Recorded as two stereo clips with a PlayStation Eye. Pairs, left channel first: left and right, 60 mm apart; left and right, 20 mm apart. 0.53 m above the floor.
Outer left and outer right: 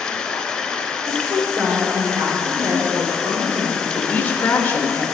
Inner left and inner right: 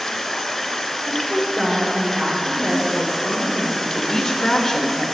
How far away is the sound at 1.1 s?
About 1.8 m.